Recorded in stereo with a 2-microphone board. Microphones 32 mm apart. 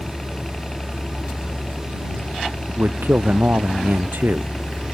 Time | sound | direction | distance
0.0 | a helicopter | 20° left (ahead or behind) | ?
2.7 | a man speaking | 75° right (ahead or behind) | ?